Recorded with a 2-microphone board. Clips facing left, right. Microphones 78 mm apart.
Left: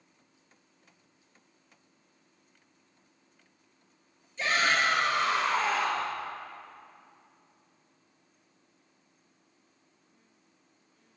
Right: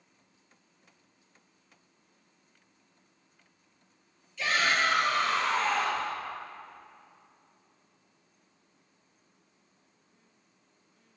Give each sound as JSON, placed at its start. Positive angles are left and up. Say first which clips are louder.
{"t": 4.4, "sound": "a shout", "louder": "left 1 dB", "side_deg": 35, "distance_m": 2.5}